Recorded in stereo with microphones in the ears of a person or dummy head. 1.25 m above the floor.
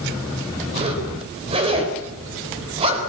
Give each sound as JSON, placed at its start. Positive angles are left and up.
{"t": 0.7, "sound": "a zipper", "side_deg": -30, "distance_m": 5.0}